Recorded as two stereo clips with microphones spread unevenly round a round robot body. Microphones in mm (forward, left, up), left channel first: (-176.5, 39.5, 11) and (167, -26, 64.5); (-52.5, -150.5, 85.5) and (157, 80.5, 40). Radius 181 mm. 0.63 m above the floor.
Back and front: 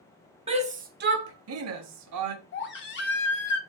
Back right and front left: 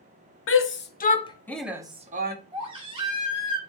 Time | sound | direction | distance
0.5 | a shout | 90° right | 0.9 m
2.5 | a baby crying | 115° left | 1.0 m